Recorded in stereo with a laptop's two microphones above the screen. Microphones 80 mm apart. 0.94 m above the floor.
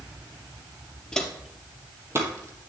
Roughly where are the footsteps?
Centre.